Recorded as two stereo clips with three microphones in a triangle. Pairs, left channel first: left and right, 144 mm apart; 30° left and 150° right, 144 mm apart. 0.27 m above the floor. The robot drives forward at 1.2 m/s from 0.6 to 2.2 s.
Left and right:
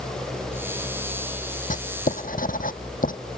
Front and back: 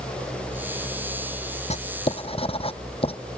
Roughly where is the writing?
Left.